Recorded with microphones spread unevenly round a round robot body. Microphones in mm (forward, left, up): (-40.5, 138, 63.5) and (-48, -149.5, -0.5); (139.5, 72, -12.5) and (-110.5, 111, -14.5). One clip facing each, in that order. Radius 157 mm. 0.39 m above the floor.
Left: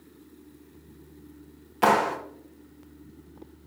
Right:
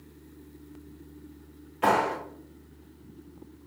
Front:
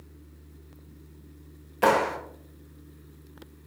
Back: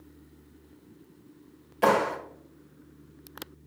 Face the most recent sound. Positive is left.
turn(degrees=75)